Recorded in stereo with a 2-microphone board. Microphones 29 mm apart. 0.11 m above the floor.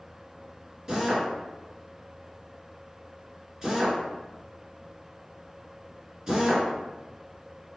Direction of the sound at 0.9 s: 20° right (ahead or behind).